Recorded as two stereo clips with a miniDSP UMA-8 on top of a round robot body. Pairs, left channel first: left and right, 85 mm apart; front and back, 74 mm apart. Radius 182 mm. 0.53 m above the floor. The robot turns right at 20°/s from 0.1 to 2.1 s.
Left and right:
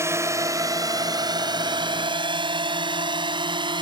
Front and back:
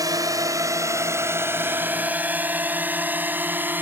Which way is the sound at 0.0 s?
145° right.